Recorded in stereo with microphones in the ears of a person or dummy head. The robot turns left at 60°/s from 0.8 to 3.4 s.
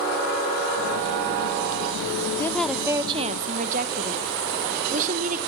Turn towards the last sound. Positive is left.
turn(degrees=-45)